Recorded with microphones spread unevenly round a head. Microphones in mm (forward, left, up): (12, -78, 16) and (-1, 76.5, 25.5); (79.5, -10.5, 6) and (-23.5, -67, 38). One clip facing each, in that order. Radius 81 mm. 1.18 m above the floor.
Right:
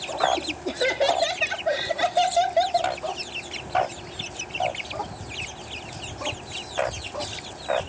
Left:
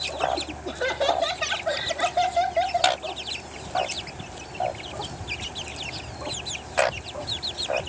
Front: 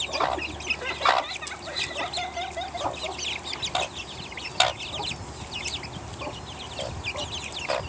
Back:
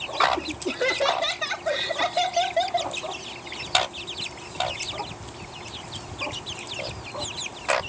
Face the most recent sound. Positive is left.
turn(degrees=-135)